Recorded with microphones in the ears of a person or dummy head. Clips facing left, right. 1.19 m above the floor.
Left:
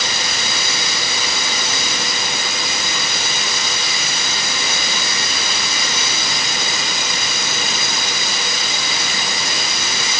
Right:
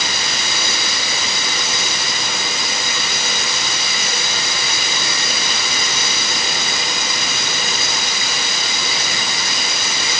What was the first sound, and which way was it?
Only background noise.